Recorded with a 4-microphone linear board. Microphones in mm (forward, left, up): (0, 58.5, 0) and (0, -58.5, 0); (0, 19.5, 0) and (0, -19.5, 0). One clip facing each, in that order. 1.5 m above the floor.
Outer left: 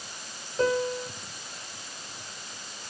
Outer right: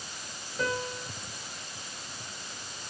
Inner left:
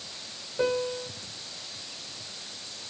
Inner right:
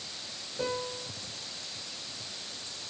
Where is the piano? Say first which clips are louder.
Outer left 7 dB, inner left 7 dB; 35° left (ahead or behind), 1.3 m.